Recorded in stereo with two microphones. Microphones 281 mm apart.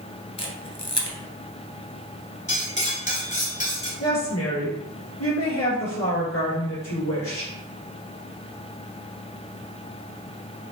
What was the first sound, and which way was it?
A camera shutter, 65° left (ahead or behind).